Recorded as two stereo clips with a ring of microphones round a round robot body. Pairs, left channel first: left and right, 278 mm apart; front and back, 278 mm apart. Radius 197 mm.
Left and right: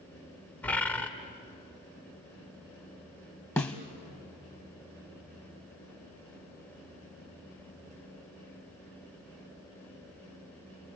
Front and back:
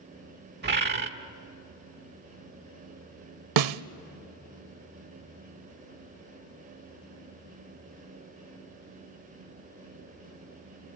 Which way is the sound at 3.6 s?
175° left.